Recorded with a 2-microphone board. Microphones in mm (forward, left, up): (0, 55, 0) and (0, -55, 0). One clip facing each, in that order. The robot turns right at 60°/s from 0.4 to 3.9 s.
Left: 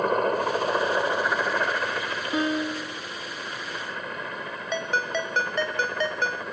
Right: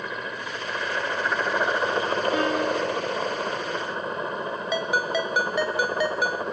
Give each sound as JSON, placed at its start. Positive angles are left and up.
{"t": 0.0, "sound": "a helicopter", "azimuth_deg": 120}
{"t": 2.3, "sound": "a piano", "side_deg": 20}
{"t": 4.7, "sound": "a ringtone", "side_deg": -10}